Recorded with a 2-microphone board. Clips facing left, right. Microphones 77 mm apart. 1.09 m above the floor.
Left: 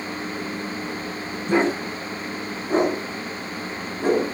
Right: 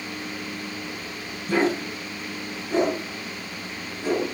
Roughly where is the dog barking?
Left.